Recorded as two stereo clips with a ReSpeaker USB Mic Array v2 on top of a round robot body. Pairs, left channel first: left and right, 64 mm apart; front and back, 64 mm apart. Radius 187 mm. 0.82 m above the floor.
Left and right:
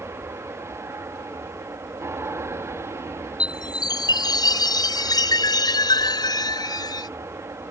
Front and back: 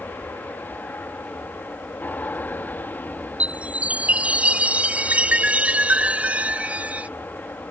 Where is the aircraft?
55° right.